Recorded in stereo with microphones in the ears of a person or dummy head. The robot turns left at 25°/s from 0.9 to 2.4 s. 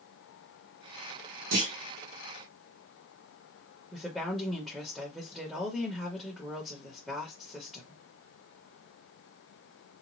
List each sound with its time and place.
1.5 s a clunk: 70° right (ahead or behind), 1.2 m; by 1.7 s 75° right (ahead or behind), 1.2 m
3.9 s a woman speaking: centre (ahead or behind), 0.9 m